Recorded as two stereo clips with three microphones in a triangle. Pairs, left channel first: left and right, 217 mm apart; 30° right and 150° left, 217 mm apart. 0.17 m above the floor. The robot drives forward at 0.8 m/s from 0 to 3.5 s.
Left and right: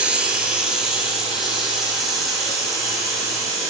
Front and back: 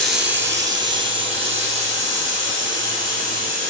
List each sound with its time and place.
0.0 s running water: 175° right, 0.9 m; by 3.7 s straight behind, 3.5 m